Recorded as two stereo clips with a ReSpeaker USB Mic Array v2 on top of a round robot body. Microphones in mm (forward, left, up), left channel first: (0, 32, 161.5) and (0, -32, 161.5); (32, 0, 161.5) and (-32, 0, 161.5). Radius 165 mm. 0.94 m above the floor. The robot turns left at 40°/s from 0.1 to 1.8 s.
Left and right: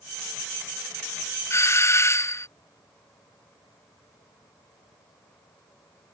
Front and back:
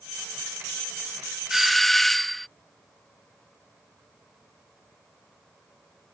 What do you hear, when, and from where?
1.5 s a doorbell: 95° left; by 2.5 s 85° left